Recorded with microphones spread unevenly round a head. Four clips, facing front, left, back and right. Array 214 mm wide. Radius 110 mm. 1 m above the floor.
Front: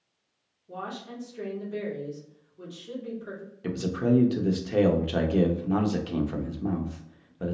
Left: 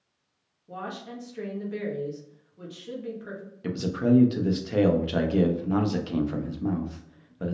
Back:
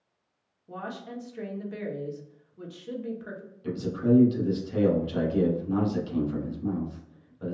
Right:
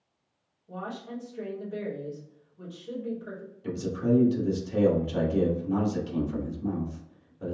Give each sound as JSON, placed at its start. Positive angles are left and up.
{"t": 0.7, "sound": "a woman speaking", "azimuth_deg": 135, "distance_m": 1.5}
{"t": 3.6, "sound": "a man speaking", "azimuth_deg": 40, "distance_m": 1.0}